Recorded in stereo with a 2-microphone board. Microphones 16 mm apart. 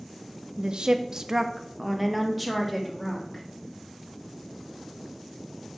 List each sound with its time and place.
0.6 s a woman speaking: 55° right (ahead or behind), 0.6 m; by 3.4 s 5° left (ahead or behind), 2.5 m